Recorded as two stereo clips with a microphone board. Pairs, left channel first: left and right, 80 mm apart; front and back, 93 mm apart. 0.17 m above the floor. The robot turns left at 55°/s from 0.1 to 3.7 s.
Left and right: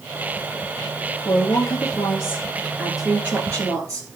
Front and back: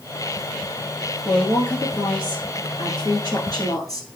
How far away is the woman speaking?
About 2.5 m.